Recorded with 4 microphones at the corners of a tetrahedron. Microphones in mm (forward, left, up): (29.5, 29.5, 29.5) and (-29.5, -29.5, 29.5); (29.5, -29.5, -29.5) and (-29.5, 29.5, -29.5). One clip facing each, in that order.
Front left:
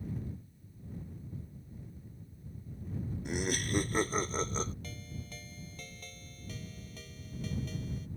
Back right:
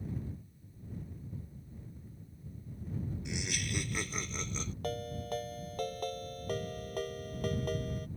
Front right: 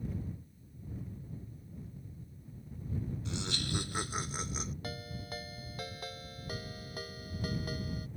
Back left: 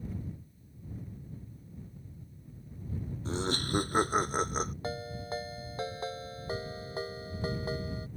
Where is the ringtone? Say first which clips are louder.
Back right 10 dB, back left 6 dB; 165° right.